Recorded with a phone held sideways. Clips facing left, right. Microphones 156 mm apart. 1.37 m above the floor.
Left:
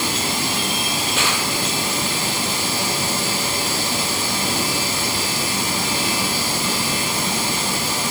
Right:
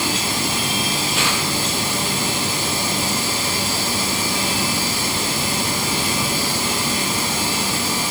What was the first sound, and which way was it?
Only background noise.